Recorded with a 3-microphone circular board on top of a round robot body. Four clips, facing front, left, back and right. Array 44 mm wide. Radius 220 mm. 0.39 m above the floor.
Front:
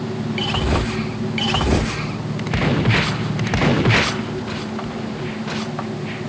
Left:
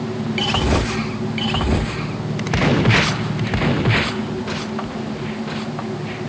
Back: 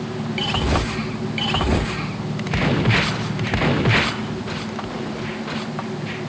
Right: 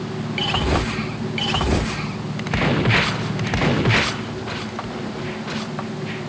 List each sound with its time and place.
Only background noise.